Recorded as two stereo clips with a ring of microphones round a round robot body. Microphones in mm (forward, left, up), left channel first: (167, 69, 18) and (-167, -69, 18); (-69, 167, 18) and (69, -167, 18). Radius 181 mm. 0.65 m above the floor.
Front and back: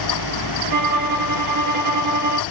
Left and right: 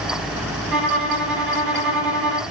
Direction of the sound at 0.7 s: 120° right.